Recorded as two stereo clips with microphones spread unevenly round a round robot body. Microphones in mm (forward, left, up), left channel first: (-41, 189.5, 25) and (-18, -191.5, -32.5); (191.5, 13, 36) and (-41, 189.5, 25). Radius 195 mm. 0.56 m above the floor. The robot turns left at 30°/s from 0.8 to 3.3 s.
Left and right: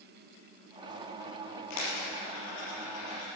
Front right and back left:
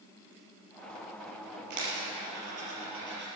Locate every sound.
1.7 s a dropped coin: 135° left, 5 m; by 3.3 s 90° left, 5 m